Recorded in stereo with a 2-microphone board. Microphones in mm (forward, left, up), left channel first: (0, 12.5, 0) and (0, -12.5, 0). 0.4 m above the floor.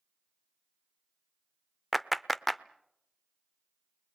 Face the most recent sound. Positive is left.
turn(degrees=0)  # may be behind; listen again after turning